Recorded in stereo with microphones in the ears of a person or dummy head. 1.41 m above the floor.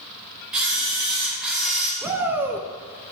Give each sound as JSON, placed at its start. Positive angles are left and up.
{"t": 0.5, "sound": "a camera shutter", "side_deg": -5, "distance_m": 2.5}
{"t": 2.0, "sound": "a shout", "side_deg": -10, "distance_m": 0.5}